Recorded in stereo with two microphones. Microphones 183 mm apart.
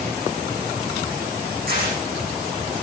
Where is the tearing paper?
65° right (ahead or behind), 8.5 m.